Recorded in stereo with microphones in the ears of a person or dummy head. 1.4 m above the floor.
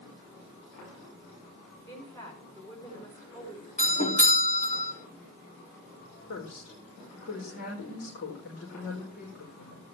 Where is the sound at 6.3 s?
75° left (ahead or behind), 5.5 m.